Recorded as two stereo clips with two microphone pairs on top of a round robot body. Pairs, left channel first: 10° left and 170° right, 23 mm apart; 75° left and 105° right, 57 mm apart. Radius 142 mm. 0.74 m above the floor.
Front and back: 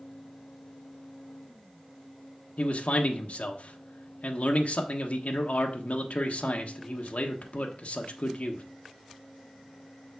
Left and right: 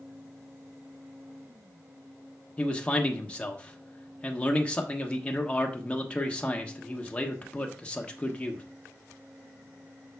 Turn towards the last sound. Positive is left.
turn(degrees=5)